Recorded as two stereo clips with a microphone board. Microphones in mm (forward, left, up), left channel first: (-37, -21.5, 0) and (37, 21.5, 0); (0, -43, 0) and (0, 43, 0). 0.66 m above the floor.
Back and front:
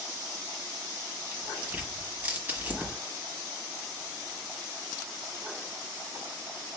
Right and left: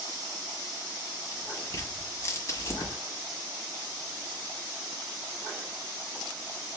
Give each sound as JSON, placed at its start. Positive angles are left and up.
{"t": 1.3, "sound": "tearing paper", "azimuth_deg": -40, "distance_m": 1.3}